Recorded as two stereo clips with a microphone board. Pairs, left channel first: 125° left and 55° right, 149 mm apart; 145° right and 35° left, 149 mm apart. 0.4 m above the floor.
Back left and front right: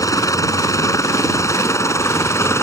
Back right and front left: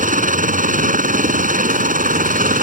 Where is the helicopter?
55° left.